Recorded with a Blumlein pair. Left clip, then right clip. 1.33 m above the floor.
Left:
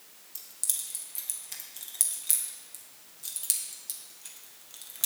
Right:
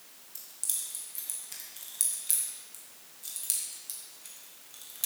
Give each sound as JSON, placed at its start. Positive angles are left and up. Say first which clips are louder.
{"t": 0.3, "sound": "keys jangling", "louder": "left 2 dB", "azimuth_deg": 10, "distance_m": 1.2}